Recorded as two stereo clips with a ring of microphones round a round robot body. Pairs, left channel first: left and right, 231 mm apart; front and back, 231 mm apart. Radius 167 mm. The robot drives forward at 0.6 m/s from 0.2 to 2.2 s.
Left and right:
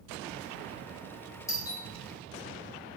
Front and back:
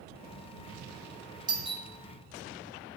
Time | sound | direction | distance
1.5 | a doorbell | 145° left | 1.1 m